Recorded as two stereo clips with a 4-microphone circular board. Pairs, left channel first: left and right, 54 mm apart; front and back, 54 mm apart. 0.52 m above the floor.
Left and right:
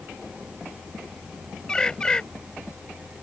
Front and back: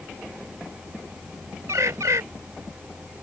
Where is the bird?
165° left.